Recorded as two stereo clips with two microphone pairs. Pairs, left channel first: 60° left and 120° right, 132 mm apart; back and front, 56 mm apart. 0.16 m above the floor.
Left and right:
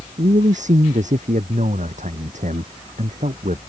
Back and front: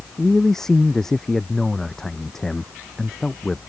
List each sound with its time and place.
0.2 s a man speaking: 100° right